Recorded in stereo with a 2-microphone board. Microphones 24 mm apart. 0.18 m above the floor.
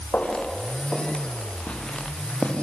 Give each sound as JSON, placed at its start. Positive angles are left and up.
{"t": 0.1, "sound": "footsteps", "side_deg": 80, "distance_m": 6.0}